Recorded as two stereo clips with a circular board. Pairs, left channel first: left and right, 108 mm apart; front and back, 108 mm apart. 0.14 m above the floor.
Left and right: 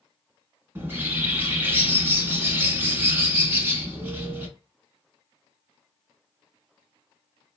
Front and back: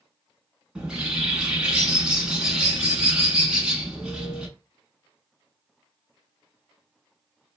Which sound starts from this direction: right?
A bird, at 0.8 s.